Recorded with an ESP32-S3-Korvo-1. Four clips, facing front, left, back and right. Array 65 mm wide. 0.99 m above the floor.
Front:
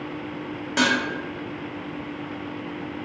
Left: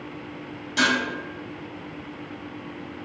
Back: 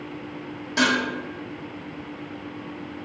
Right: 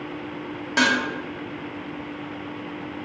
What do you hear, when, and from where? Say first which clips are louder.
0.8 s dishes clattering: right 2 dB, even; 75° right, 1.2 m